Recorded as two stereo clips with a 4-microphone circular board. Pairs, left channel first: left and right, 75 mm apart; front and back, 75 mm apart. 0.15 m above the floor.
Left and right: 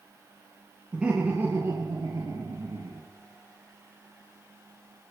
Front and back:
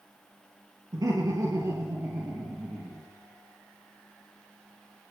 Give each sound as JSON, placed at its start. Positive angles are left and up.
{"t": 0.9, "sound": "laughter", "azimuth_deg": -165, "distance_m": 2.5}